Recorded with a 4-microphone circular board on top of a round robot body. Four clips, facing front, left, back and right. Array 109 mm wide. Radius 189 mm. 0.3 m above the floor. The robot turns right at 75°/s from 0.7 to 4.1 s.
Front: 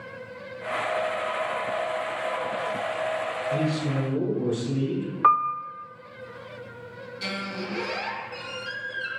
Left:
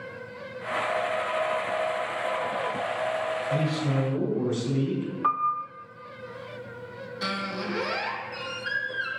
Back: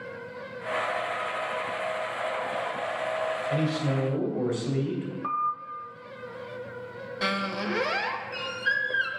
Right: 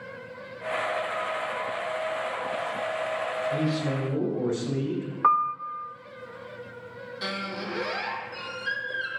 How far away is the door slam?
No door slam in this recording.